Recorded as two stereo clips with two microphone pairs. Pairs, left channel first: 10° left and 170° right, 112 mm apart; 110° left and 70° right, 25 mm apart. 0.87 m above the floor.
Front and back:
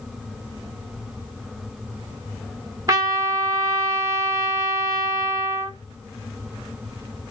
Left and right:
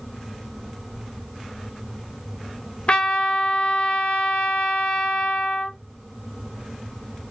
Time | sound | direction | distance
2.9 | a trumpet | 135° left | 0.9 m